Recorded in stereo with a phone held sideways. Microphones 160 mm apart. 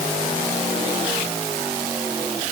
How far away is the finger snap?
No finger snap in this recording.